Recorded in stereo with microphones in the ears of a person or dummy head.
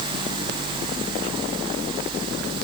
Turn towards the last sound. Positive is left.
No sound to turn to.